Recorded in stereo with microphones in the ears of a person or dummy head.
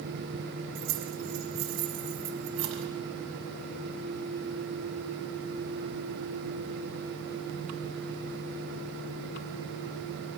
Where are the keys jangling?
80° right, 6.5 m.